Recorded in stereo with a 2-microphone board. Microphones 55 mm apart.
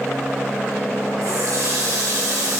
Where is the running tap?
85° right, 3 m.